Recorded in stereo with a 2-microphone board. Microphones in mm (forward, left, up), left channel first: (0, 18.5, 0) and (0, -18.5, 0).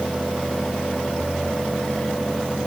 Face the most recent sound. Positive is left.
No sound to turn to.